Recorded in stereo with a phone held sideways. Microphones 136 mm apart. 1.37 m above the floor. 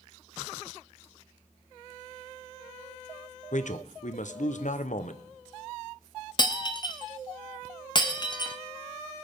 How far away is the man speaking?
About 0.9 m.